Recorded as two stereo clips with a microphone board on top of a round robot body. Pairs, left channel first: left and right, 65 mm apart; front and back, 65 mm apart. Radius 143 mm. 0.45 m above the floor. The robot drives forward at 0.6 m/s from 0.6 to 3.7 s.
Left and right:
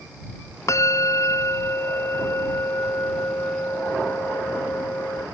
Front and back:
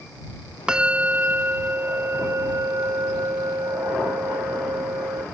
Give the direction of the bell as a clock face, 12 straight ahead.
8 o'clock.